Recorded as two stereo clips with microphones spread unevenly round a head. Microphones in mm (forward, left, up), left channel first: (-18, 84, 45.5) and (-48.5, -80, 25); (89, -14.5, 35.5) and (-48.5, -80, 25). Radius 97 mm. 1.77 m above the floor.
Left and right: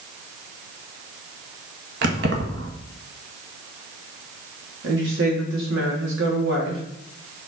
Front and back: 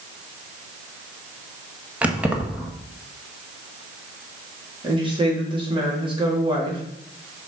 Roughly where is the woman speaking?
Right.